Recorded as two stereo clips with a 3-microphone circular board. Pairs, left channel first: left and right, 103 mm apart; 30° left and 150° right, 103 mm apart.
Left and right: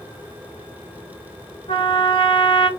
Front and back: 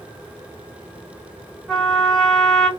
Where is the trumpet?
120° left, 0.9 m.